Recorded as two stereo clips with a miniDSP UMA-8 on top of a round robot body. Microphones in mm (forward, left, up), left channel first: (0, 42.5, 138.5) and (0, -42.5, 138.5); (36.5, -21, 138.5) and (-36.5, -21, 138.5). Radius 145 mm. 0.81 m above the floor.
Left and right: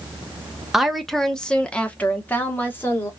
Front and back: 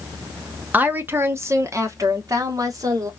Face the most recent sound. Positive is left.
turn(degrees=150)